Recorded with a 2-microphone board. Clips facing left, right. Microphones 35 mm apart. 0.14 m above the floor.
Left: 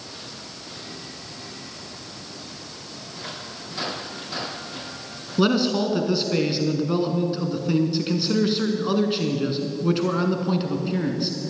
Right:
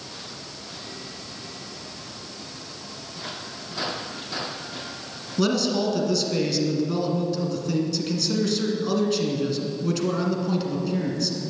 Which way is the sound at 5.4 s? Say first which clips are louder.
Left 2 dB; 25° left (ahead or behind).